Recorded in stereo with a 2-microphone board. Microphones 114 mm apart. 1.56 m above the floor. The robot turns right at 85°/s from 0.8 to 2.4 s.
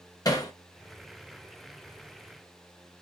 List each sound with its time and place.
0.2 s hammering: 30° left (ahead or behind), 0.7 m